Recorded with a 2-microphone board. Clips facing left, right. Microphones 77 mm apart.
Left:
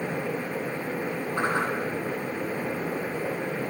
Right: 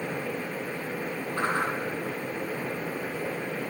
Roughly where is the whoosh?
Centre.